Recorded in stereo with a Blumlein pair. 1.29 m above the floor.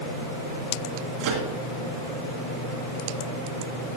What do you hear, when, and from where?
1.2 s a microwave: 35° right, 2 m